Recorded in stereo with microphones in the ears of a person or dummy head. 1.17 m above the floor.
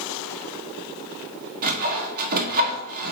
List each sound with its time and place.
1.6 s sawing: 50° right (ahead or behind), 1.4 m